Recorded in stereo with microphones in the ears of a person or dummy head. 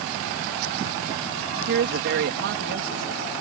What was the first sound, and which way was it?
A woman speaking, 60° right (ahead or behind).